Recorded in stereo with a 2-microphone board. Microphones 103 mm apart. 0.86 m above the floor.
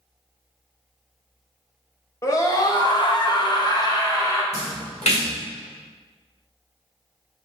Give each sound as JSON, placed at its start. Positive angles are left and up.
{"t": 2.2, "sound": "a scream", "side_deg": 30, "distance_m": 1.3}
{"t": 4.5, "sound": "a splash", "side_deg": 85, "distance_m": 1.8}